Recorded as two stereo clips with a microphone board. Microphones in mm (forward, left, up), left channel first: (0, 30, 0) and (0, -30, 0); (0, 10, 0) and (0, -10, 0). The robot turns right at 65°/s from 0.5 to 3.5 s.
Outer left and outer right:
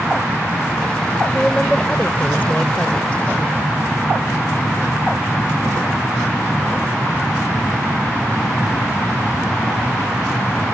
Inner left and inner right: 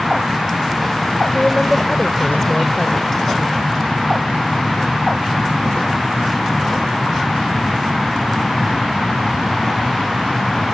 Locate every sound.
1.3 s a woman speaking: centre (ahead or behind); by 3.2 s 20° left (ahead or behind)